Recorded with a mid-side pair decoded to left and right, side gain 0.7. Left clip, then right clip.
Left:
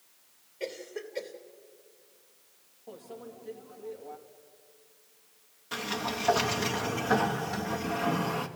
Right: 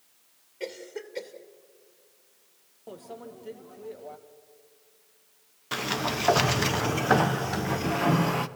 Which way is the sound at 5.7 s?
35° right.